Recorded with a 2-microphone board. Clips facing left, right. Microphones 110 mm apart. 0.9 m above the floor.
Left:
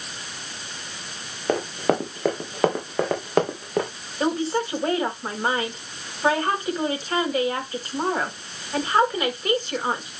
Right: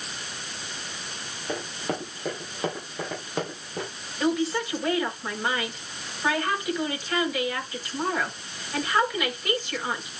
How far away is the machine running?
No machine running in this recording.